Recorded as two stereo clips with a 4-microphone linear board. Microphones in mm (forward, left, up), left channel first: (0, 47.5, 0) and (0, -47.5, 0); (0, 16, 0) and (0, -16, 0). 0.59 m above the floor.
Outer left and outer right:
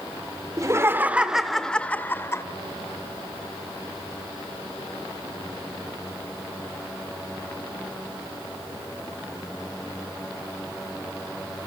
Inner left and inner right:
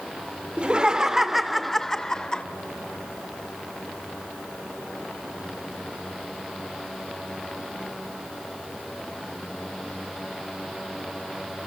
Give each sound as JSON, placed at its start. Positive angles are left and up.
{"t": 0.6, "sound": "laughter", "side_deg": -35, "distance_m": 2.0}